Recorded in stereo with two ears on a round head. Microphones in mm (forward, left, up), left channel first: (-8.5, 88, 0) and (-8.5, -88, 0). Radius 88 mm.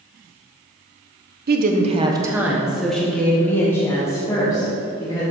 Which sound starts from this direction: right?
A woman speaking, at 1.5 s.